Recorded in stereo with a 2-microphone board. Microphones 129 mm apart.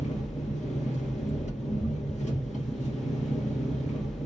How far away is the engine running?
About 2.5 m.